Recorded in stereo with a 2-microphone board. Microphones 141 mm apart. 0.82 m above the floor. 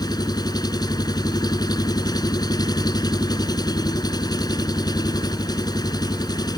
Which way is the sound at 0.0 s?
30° left (ahead or behind).